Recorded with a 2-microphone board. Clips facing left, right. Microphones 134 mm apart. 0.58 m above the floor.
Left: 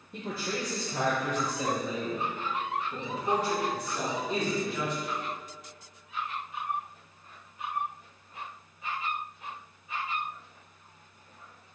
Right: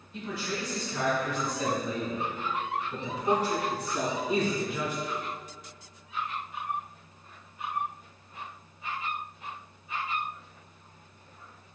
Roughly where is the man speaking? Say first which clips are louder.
Even; left.